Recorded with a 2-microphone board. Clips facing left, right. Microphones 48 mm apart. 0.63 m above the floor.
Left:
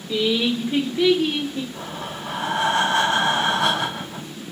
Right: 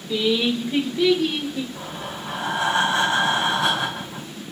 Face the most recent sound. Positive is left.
turn(degrees=55)  # may be behind; listen again after turning